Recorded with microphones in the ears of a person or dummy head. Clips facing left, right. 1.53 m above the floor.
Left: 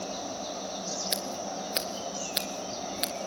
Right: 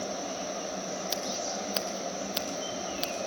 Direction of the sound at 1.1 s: 25° left (ahead or behind).